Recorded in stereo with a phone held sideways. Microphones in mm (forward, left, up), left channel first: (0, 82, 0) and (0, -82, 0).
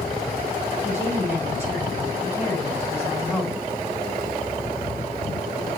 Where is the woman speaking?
15° left (ahead or behind), 7.5 m.